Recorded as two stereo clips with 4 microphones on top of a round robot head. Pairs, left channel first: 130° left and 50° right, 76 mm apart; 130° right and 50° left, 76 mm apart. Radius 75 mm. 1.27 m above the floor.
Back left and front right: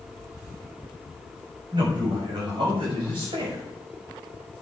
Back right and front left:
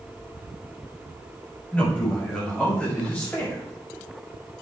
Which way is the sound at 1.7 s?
55° right.